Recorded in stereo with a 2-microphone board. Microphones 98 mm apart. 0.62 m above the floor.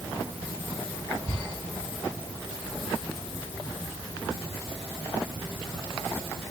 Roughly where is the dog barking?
I don't hear a dog barking.